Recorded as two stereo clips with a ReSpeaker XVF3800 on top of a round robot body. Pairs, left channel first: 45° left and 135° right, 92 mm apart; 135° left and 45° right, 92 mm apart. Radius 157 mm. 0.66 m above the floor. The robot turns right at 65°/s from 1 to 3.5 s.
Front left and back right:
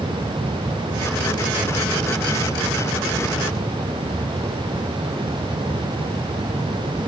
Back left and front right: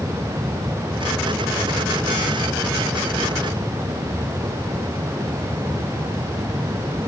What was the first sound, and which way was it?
Only background noise.